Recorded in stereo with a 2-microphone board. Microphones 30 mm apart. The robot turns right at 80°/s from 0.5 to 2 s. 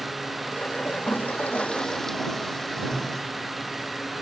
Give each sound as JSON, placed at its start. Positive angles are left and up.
{"t": 0.8, "sound": "a toilet flushing", "azimuth_deg": 75}